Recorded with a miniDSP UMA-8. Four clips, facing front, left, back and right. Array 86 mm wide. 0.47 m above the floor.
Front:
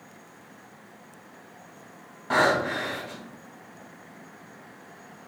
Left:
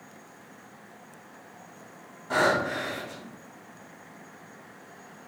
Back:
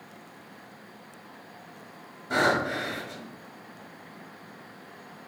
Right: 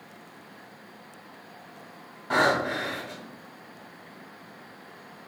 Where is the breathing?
20° right, 2.0 m.